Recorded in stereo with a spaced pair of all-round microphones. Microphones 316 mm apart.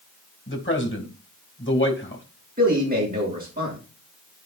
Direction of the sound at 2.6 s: 30° right (ahead or behind).